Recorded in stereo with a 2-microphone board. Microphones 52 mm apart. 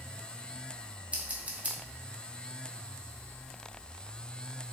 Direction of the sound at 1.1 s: 30° right (ahead or behind).